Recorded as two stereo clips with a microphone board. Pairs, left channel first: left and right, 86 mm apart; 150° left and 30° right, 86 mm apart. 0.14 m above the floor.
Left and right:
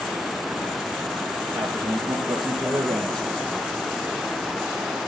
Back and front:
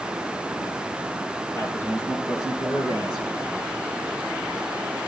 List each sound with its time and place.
1.6 s a man speaking: 165° right, 2.5 m; by 3.3 s 170° left, 3 m